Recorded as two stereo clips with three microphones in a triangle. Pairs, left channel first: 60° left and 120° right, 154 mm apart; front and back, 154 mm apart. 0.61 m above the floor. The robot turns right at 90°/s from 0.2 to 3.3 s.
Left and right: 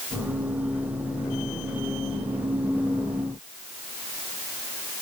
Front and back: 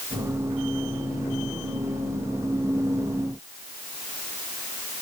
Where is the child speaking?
I don't hear a child speaking.